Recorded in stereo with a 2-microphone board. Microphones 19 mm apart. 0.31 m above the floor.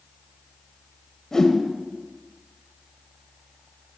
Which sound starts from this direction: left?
A whoosh, at 1.3 s.